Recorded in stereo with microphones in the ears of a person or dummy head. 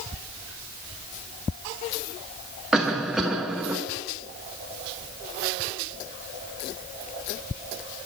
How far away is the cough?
About 0.8 m.